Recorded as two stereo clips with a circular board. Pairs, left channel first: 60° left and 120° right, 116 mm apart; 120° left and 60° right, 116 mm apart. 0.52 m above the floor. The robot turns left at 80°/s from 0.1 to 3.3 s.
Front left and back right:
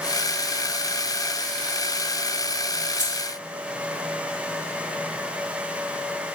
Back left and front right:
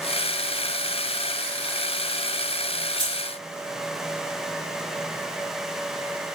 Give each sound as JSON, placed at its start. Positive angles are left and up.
{"t": 3.0, "sound": "keys jangling", "azimuth_deg": -5, "distance_m": 4.0}